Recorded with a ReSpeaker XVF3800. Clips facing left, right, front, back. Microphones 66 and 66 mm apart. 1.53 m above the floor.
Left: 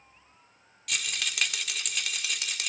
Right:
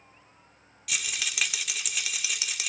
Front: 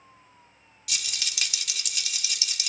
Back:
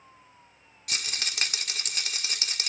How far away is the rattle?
About 1.4 m.